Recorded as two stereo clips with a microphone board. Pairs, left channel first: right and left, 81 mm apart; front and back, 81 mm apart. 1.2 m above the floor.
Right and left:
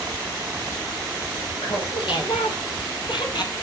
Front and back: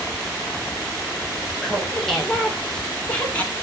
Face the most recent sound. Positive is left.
turn(degrees=-65)